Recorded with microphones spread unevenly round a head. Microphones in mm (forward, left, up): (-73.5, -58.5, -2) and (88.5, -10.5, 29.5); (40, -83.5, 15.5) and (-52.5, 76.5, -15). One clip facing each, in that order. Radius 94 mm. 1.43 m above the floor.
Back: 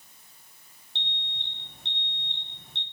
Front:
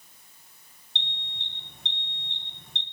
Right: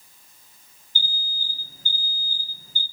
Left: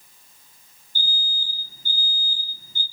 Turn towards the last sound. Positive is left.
turn(degrees=-75)